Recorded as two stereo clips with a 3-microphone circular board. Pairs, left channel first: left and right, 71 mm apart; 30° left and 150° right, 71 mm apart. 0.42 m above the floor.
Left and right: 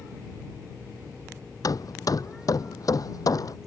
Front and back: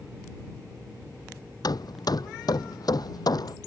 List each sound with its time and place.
1.6 s hammering: 55° left